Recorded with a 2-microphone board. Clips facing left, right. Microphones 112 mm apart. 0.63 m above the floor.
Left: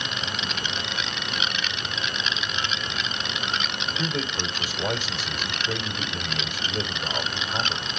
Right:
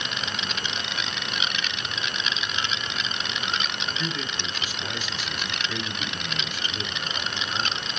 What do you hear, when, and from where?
4.0 s a man speaking: 60° left (ahead or behind), 2 m